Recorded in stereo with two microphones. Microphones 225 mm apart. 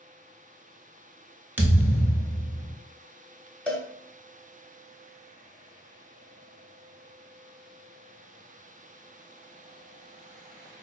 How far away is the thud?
About 0.7 m.